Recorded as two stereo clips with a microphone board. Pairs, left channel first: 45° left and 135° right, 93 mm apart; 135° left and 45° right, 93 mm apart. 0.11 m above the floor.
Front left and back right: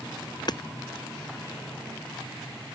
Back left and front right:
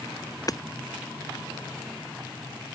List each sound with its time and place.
0.5 s hammering: 85° left